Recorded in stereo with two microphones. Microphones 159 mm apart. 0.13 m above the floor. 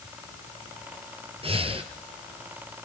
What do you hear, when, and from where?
1.4 s breathing: 40° right (ahead or behind), 1.9 m